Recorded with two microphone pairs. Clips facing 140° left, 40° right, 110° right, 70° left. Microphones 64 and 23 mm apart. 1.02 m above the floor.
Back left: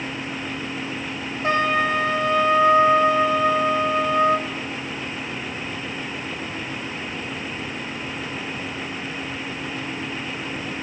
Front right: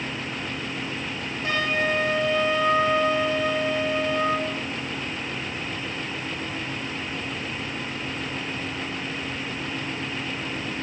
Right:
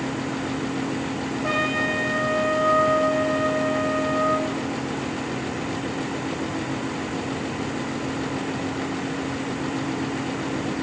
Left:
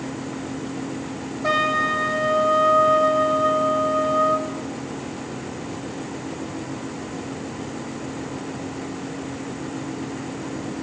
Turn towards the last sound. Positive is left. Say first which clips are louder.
# back left 5 dB, left 4 dB
turn(degrees=90)